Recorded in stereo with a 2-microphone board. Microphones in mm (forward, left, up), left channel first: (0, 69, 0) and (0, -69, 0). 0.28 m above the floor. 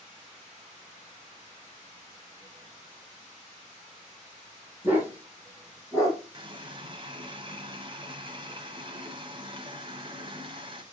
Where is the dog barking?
15° right (ahead or behind), 4 m; by 6.2 s centre (ahead or behind), 3.5 m.